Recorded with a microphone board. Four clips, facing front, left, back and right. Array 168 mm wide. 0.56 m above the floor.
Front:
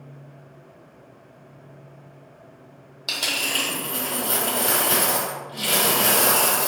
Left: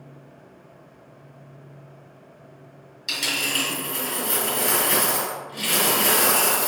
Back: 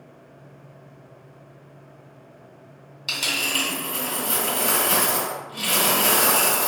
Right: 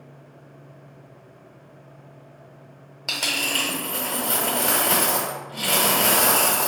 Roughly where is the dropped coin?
Ahead right.